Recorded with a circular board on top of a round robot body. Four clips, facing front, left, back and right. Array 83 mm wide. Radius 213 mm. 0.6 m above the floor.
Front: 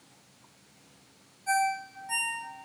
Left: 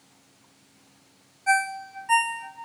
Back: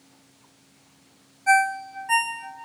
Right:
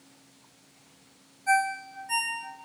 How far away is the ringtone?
About 1.4 m.